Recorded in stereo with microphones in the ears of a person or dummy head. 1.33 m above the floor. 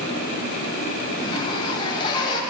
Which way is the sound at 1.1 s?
20° left (ahead or behind).